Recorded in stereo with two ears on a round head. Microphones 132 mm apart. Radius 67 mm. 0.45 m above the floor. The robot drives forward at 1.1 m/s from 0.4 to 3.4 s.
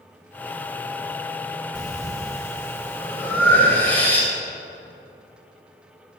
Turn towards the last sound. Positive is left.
turn(degrees=15)  # may be behind; listen again after turning